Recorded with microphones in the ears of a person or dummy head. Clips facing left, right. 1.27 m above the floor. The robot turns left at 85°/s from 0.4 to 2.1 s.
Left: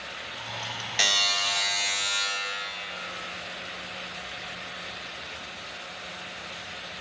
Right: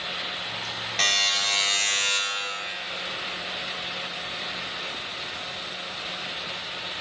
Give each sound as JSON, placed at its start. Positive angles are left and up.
{"t": 1.0, "sound": "a buzzer", "azimuth_deg": 10, "distance_m": 1.5}